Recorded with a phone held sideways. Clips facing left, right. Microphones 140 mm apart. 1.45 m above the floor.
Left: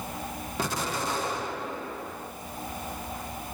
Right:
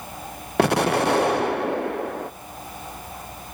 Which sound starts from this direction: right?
An explosion, at 0.6 s.